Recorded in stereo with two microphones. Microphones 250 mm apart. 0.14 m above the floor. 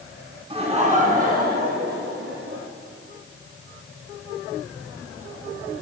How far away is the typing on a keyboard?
I don't hear typing on a keyboard.